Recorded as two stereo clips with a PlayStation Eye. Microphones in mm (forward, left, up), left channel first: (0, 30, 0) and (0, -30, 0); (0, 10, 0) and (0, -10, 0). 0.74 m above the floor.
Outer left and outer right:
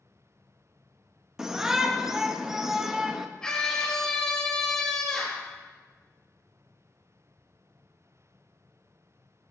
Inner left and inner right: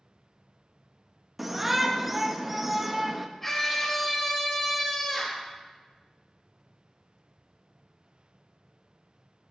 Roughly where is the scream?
Centre.